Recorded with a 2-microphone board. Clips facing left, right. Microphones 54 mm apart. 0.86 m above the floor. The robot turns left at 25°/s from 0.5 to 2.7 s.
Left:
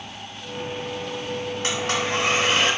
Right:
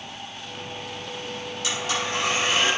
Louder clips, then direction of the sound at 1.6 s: Left 2 dB; 50° left (ahead or behind).